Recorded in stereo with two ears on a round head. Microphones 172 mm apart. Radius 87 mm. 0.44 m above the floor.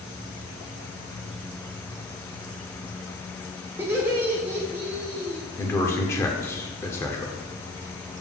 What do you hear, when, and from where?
3.8 s laughter: 10° right (ahead or behind), 1.2 m
5.6 s a man speaking: 15° left (ahead or behind), 1.0 m